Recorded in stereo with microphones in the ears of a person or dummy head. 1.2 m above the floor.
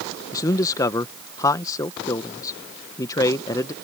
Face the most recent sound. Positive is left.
turn(degrees=25)  # may be behind; listen again after turning